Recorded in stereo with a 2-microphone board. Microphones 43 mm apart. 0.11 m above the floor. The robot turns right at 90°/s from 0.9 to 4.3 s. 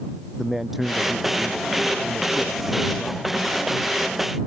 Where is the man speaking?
175° right; by 3.2 s 30° left.